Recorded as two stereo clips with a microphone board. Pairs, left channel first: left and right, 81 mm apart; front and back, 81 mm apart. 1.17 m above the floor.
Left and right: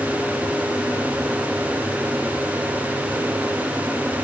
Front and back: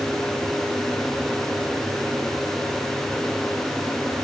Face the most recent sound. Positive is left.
No sound to turn to.